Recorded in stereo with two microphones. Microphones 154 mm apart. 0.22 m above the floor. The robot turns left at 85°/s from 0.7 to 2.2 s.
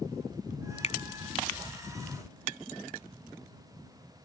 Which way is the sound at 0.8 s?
45° left (ahead or behind).